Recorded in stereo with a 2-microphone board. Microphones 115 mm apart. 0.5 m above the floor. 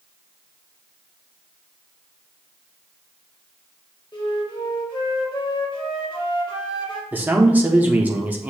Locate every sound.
4.1 s a flute: 45° left (ahead or behind), 1.0 m
7.1 s a man speaking: 15° right (ahead or behind), 0.7 m